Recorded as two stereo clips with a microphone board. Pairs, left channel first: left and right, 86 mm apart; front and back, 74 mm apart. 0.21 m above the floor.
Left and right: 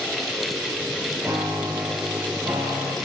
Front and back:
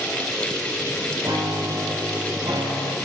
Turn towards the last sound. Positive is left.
turn(degrees=-145)